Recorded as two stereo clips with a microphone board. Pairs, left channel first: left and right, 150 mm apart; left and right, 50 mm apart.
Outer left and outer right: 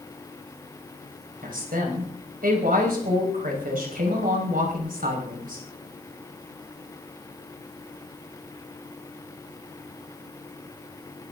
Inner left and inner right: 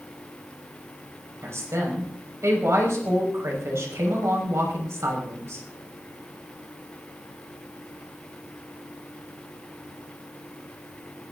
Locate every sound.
1.4 s a woman speaking: 75° right (ahead or behind), 5.5 m